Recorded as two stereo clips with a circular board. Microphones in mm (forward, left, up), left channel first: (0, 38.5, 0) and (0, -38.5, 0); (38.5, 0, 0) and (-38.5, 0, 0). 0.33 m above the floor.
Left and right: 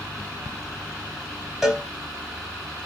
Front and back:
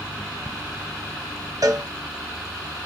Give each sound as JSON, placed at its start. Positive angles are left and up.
{"t": 1.6, "sound": "a cowbell", "azimuth_deg": -175, "distance_m": 1.3}